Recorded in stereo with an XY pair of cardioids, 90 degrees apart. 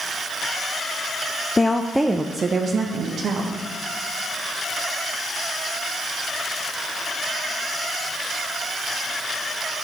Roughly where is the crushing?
No crushing in this recording.